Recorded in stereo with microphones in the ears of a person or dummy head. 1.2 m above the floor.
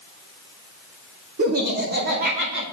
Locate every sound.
1.4 s laughter: 50° right (ahead or behind), 2 m; by 2.6 s 60° right (ahead or behind), 3.5 m